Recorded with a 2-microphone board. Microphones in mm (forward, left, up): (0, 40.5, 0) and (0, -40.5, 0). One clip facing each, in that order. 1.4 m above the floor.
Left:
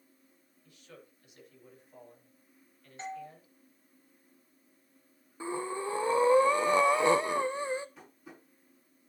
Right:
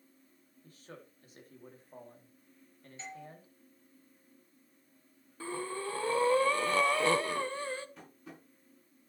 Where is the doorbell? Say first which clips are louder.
Left 7 dB; 40° left (ahead or behind), 2.5 m.